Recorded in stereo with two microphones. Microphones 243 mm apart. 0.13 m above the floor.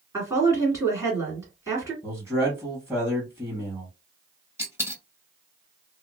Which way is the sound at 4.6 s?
10° right (ahead or behind).